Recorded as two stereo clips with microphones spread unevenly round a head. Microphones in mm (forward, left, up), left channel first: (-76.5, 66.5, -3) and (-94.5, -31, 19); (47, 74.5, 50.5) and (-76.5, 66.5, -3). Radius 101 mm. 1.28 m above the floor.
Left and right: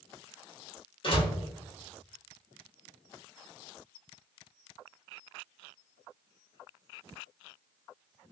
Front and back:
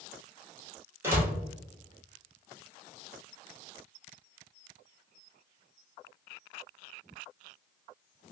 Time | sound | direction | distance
1.0 | a door slam | 110° left | 1.8 m